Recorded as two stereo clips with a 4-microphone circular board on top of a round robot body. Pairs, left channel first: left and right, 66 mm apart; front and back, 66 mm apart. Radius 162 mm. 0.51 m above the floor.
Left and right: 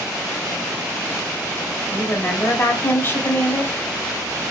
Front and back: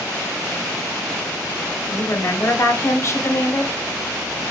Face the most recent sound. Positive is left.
turn(degrees=40)